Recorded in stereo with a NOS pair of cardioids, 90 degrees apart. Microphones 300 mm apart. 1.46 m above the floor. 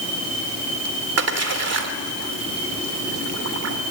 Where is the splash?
60° right, 3 m.